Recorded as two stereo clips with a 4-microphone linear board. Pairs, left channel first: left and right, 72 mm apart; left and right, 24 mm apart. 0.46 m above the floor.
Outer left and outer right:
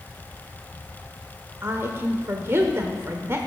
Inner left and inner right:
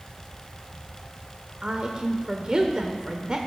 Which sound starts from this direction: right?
A woman speaking, at 1.6 s.